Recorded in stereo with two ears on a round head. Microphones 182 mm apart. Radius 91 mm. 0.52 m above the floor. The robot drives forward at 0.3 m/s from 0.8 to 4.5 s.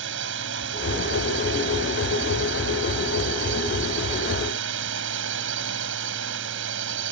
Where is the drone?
65° right (ahead or behind).